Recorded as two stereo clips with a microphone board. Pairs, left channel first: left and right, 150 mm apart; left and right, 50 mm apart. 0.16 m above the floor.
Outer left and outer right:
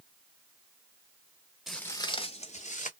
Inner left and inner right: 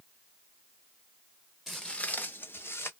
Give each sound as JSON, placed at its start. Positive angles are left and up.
{"t": 1.7, "sound": "footsteps", "side_deg": 0, "distance_m": 0.6}